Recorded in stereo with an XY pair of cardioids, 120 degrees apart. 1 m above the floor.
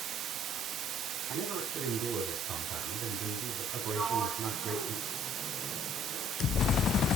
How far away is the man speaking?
About 8 m.